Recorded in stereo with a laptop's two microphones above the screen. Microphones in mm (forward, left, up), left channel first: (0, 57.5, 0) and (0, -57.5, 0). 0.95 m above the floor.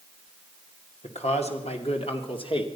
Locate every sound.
1.0 s a man speaking: 70° left (ahead or behind), 2.5 m; by 2.7 s 50° left (ahead or behind), 2.5 m